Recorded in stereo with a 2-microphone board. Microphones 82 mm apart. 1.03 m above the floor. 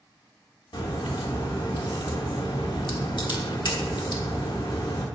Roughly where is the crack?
Left.